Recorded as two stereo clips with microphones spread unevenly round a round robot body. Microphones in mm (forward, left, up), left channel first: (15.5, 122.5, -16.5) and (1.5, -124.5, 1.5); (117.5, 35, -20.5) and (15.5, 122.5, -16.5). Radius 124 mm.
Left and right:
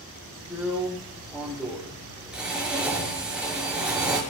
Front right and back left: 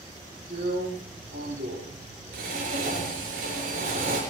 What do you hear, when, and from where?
0.5 s a drill: straight behind, 6 m